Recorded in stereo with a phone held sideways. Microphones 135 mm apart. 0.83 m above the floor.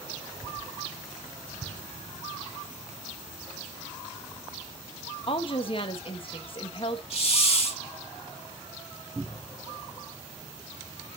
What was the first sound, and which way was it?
A woman speaking, 40° left (ahead or behind).